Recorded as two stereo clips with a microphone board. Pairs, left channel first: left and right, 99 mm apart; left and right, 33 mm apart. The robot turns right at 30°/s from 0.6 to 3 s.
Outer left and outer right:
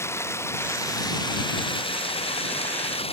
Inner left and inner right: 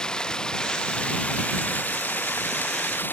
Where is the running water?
25° left; by 3.1 s 100° left.